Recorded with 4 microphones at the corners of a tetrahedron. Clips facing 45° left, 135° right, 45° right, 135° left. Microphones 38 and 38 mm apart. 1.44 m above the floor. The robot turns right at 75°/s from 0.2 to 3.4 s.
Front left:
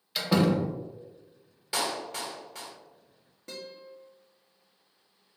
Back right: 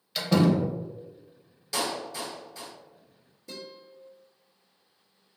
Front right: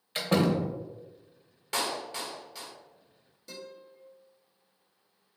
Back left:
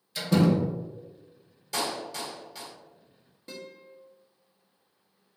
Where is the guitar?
80° left, 1.1 m.